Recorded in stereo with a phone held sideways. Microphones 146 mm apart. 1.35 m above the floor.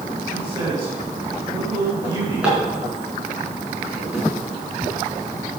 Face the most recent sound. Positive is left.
turn(degrees=-5)  # may be behind; listen again after turning